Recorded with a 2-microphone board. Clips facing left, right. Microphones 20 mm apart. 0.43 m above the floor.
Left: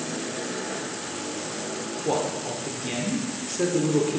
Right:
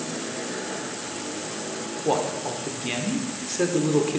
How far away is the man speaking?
About 0.8 m.